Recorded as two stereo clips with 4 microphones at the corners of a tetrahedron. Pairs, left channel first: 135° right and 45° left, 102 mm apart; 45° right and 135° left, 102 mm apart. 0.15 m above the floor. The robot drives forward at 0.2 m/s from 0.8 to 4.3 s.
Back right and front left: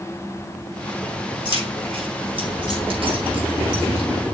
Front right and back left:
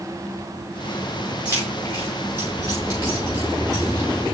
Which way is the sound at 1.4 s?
80° left.